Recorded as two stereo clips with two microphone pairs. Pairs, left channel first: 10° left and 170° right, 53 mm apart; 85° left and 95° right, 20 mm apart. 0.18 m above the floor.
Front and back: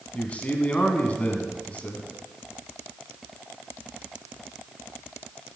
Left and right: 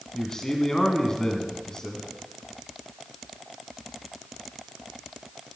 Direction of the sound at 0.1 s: 50° left.